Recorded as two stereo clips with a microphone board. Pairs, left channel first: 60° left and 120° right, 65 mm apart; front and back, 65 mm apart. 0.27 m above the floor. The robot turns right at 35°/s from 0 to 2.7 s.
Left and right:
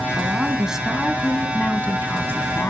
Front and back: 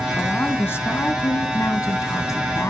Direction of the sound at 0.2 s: 60° right.